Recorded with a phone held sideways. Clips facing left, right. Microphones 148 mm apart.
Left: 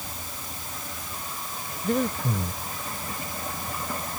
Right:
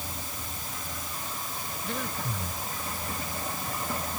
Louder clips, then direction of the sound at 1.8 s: Left 10 dB; 50° left (ahead or behind).